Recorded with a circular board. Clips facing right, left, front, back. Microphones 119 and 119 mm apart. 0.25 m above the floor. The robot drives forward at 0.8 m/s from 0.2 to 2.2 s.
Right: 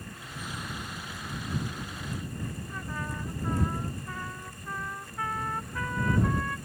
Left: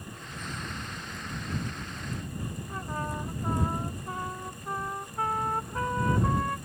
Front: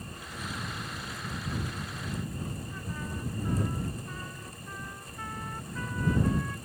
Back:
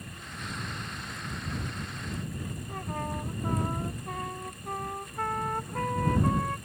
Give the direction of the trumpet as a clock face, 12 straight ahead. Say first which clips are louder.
Left 3 dB, back 4 dB; 7 o'clock.